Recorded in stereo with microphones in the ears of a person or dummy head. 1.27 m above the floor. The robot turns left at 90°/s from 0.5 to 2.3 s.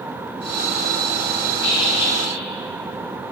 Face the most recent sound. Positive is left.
turn(degrees=40)